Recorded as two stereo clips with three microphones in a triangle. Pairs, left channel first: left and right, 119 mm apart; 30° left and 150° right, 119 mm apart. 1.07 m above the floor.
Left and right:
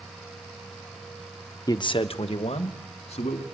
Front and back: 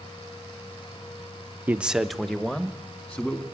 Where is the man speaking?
140° left, 0.7 m; by 3.4 s 105° left, 2.5 m.